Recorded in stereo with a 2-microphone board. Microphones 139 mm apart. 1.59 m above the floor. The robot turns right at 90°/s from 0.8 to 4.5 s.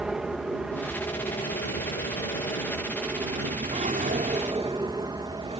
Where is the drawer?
125° right; by 5.6 s 55° right.